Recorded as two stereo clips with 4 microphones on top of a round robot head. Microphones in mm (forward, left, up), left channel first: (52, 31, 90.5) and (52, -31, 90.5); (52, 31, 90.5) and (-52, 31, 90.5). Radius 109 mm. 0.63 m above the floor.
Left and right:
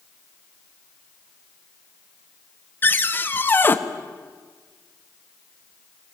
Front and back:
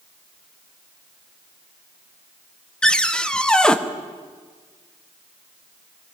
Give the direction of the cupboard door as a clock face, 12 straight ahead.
9 o'clock.